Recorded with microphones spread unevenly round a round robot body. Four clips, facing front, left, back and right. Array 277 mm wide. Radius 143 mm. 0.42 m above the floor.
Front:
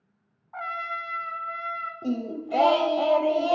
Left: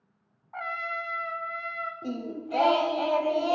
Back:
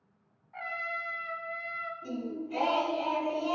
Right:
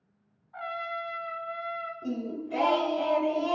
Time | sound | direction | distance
0.5 | a trumpet | 65° left | 0.8 m
2.0 | singing | 10° left | 0.8 m